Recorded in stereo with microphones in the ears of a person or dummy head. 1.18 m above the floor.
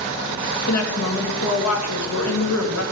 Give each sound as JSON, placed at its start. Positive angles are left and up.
{"t": 0.7, "sound": "a woman speaking", "side_deg": 80, "distance_m": 1.9}